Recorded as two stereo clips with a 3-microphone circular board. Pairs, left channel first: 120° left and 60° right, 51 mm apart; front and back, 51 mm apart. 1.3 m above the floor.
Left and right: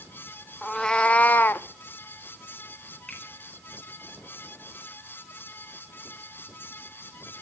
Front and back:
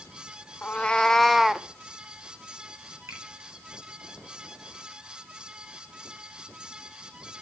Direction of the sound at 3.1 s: 170° right.